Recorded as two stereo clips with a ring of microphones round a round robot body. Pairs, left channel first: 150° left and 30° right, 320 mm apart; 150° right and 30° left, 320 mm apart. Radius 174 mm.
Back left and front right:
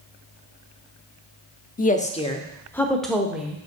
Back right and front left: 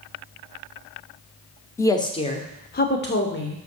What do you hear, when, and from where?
1.8 s a woman speaking: 140° left, 1.0 m; by 3.6 s 110° right, 1.3 m